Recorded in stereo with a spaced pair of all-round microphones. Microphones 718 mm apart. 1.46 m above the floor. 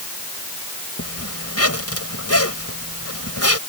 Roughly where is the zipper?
Centre.